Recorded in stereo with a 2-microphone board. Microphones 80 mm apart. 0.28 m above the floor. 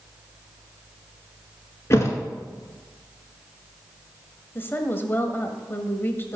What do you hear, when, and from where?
1.9 s a thud: 35° left (ahead or behind), 1.6 m
4.5 s a woman speaking: 25° left (ahead or behind), 1.3 m